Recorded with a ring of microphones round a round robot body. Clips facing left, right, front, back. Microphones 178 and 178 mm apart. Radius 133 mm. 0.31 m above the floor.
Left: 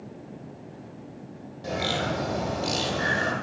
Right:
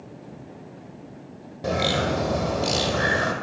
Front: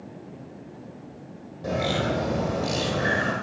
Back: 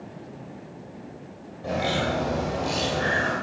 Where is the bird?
60° right, 2 m.